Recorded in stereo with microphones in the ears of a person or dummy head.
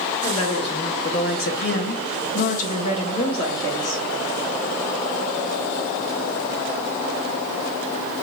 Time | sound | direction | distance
0.2 | a woman speaking | 25° left (ahead or behind) | 1.2 m